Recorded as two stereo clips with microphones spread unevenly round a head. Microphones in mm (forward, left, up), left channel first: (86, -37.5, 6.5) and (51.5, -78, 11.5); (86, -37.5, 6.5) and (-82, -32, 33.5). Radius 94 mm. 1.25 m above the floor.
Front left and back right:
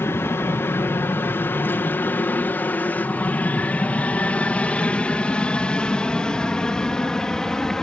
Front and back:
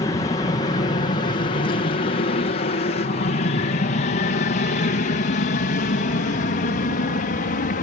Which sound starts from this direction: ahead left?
An aircraft, at 0.0 s.